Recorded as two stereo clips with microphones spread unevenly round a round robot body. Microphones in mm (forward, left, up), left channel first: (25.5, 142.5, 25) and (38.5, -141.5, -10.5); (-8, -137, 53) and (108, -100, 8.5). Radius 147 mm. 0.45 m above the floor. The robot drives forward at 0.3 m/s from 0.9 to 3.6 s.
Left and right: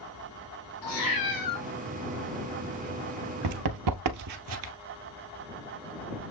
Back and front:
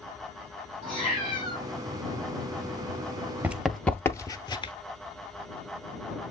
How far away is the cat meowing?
About 4 m.